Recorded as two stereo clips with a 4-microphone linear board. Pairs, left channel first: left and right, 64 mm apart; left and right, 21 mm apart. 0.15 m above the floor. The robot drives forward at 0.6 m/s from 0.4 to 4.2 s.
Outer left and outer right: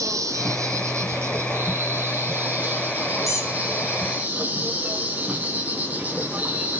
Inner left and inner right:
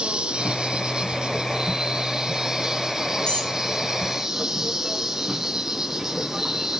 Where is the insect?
55° right (ahead or behind), 1.4 m; by 6.8 s 25° right (ahead or behind), 3 m.